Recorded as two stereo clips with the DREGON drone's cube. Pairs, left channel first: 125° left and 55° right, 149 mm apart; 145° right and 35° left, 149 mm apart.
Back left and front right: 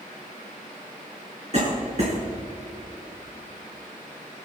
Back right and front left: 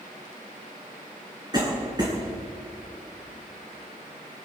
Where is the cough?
20° right, 2.5 m.